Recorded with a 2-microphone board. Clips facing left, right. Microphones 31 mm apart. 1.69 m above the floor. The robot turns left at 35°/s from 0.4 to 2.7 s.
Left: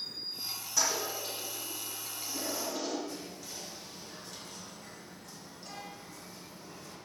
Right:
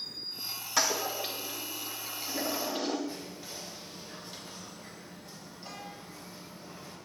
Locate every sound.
0.8 s a toilet flushing: 65° right (ahead or behind), 2 m; by 3.0 s 50° right (ahead or behind), 2 m
3.1 s whispering: 25° right (ahead or behind), 3.5 m